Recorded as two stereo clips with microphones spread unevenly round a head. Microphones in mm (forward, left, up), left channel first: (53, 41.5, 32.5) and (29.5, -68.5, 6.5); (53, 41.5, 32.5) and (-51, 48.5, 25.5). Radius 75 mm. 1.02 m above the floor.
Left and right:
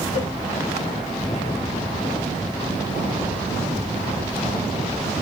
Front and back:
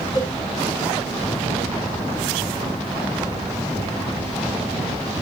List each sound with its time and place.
0.1 s a cowbell: 50° left, 1.9 m